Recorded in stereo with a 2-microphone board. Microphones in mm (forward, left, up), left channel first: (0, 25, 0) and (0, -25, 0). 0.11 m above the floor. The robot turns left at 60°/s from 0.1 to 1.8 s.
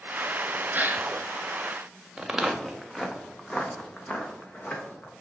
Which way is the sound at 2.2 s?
10° right (ahead or behind).